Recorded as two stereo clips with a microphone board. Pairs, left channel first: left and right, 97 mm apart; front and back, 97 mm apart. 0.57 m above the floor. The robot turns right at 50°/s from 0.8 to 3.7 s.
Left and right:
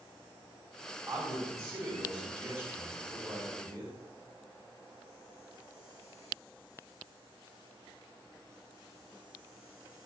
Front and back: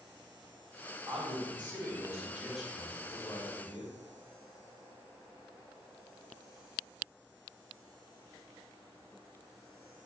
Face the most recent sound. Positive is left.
turn(degrees=-35)